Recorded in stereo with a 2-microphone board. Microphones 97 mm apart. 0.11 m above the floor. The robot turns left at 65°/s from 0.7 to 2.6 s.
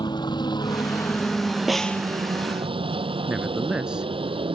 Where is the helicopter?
50° left (ahead or behind); by 4.5 s 65° right (ahead or behind).